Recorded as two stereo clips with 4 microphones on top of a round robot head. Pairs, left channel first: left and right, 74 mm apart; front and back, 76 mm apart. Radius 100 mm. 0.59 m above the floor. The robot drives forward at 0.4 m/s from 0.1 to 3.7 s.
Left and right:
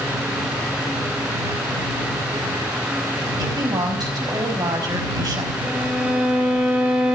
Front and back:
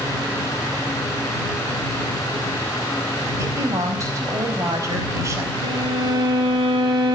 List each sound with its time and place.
3.4 s a woman speaking: 125° right, 5 m
5.6 s a violin: 165° right, 5 m